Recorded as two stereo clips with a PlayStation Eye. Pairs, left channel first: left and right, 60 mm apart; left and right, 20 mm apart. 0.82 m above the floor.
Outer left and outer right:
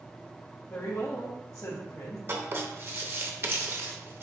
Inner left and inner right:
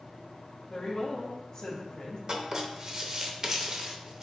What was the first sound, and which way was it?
A woman speaking, 50° left (ahead or behind).